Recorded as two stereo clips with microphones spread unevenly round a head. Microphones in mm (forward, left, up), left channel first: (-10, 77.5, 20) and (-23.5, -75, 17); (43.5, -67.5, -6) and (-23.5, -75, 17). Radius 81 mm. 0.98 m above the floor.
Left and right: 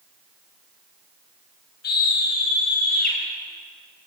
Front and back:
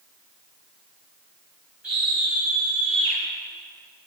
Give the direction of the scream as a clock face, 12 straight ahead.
9 o'clock.